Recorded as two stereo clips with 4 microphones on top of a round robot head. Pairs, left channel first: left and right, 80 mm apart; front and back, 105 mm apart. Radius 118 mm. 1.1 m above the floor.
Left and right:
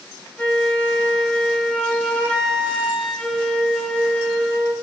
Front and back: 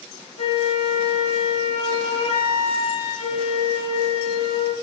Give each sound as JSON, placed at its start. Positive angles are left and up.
{"t": 0.4, "sound": "a flute", "azimuth_deg": 15, "distance_m": 5.0}